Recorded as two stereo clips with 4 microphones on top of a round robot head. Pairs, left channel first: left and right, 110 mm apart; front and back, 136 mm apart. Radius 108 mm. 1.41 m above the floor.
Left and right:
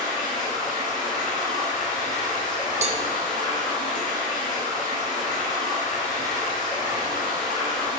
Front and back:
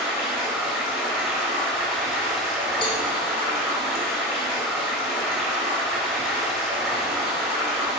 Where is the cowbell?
60° right, 0.6 m.